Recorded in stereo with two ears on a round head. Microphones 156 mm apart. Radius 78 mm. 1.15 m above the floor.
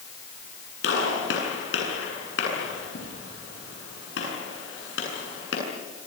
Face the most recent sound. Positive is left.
turn(degrees=75)  # may be behind; listen again after turning